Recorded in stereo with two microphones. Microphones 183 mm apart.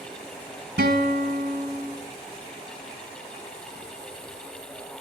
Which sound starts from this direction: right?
A guitar, at 0.8 s.